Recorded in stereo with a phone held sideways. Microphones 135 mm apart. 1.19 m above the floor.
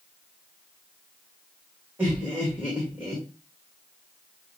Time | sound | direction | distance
2.0 | laughter | 10° right (ahead or behind) | 1.6 m